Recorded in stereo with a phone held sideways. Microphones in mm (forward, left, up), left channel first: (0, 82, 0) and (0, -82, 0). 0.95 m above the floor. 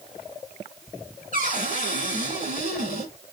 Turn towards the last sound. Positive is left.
turn(degrees=-55)  # may be behind; listen again after turning